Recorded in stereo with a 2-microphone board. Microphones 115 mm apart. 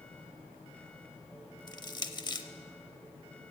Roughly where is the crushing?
Left.